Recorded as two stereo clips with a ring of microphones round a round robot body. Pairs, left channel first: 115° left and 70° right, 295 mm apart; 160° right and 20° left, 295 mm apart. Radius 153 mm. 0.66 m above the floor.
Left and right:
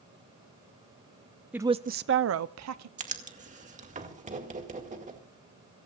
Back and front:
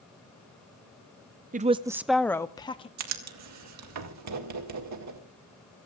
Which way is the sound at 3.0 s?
5° right.